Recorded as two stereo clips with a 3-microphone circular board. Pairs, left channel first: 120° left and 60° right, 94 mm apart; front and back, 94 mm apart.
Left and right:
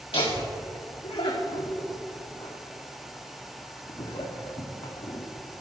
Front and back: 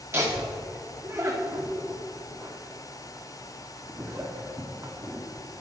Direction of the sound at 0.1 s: 120° left.